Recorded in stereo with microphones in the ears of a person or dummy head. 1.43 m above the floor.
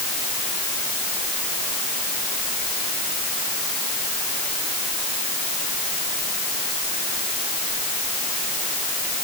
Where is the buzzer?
No buzzer in this recording.